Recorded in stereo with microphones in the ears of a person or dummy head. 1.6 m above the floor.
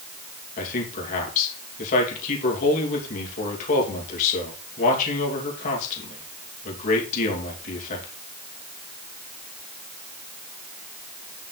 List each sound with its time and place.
0.6 s a man speaking: 40° left (ahead or behind), 2.5 m